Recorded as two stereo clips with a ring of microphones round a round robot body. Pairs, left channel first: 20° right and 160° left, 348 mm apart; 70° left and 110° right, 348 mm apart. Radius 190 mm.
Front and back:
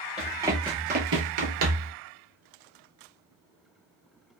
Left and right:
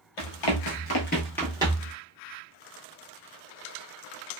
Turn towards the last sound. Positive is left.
turn(degrees=-170)